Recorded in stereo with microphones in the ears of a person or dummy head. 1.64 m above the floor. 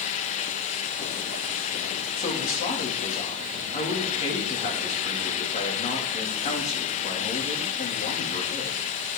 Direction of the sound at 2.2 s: 35° left (ahead or behind).